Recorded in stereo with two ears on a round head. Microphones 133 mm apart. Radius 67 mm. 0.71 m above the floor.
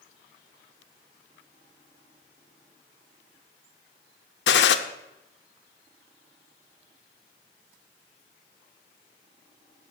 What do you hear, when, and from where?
4.5 s a gunshot: 80° left, 0.7 m